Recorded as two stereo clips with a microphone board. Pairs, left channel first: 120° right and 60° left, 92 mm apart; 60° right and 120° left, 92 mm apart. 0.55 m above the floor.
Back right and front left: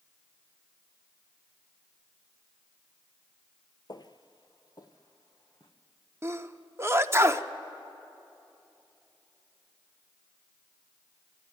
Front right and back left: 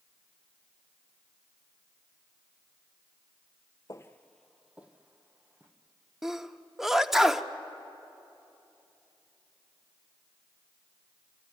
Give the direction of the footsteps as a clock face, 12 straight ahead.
3 o'clock.